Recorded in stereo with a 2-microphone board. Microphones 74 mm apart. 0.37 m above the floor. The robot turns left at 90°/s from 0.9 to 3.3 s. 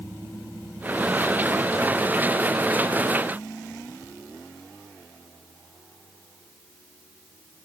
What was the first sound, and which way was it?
Only background noise.